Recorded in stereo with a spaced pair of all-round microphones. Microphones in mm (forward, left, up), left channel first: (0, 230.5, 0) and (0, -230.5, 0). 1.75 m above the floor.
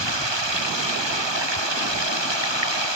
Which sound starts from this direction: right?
Running water, at 0.0 s.